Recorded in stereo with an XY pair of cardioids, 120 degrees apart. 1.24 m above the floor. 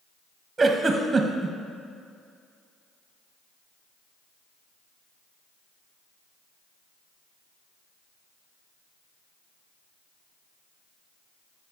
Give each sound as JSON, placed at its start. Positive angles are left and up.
{"t": 0.6, "sound": "a giggle", "azimuth_deg": -20, "distance_m": 0.9}